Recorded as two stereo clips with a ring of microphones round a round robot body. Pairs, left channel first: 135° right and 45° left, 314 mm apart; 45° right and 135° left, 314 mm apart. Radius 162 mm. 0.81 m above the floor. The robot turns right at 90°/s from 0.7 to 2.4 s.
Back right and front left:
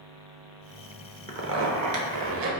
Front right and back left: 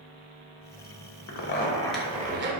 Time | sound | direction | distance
1.3 | a zipper | 15° right | 0.8 m